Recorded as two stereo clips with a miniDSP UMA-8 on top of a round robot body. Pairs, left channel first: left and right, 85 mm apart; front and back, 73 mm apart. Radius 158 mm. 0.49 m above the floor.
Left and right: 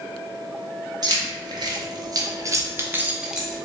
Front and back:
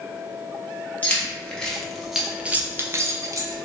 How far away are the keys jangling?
About 1.2 m.